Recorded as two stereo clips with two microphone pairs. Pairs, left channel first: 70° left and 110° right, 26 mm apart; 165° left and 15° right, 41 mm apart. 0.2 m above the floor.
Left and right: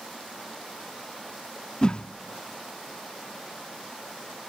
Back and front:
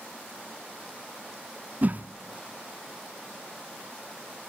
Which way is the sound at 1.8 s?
25° left.